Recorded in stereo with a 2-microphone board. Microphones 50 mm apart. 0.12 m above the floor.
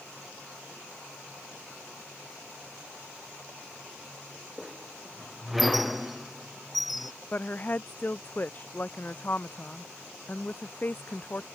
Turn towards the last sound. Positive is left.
turn(degrees=35)  # may be behind; listen again after turning